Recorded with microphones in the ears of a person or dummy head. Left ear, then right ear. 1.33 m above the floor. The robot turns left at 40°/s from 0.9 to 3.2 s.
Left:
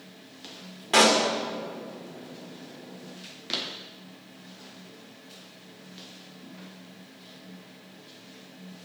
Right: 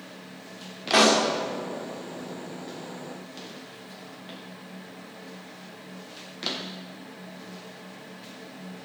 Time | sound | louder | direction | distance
0.9 | a pop | even | 5° left (ahead or behind) | 1.3 m